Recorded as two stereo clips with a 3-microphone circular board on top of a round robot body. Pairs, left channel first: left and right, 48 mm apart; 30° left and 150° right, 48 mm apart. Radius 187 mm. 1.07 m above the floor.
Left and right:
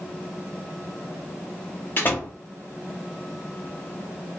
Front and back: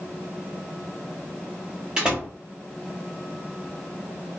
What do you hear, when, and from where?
2.0 s a door slam: 135° left, 1.1 m